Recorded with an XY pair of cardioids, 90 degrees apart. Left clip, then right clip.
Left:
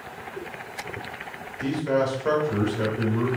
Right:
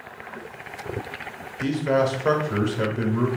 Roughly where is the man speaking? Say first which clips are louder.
Right 2 dB; ahead right.